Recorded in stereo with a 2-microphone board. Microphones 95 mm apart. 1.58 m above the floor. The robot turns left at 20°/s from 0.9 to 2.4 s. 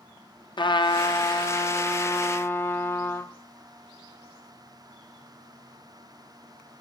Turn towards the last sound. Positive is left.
turn(degrees=25)